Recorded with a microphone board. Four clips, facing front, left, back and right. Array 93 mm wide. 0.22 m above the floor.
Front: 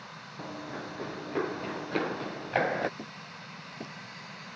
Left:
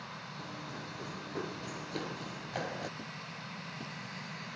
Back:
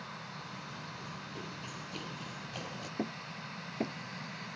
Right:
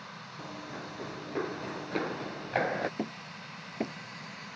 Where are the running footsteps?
15° right; by 2.9 s 30° right.